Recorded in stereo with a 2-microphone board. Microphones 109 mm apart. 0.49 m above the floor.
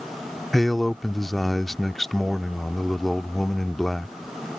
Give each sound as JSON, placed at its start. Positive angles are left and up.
{"t": 0.5, "sound": "a man speaking", "side_deg": 0}